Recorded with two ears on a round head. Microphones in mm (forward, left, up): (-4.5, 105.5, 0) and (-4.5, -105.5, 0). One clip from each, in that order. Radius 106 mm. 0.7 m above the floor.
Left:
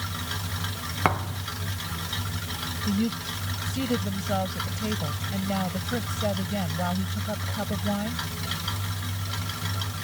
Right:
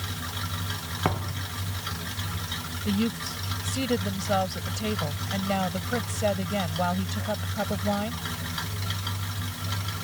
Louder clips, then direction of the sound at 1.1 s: Left 5 dB; 50° left (ahead or behind).